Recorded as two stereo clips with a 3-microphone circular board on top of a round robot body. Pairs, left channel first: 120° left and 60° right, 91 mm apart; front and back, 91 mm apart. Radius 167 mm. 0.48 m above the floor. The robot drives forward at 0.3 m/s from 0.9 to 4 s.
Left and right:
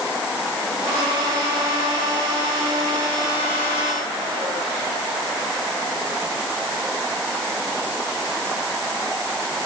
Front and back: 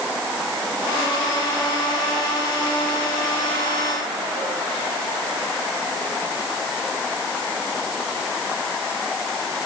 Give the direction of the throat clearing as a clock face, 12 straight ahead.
No throat clearing in this recording.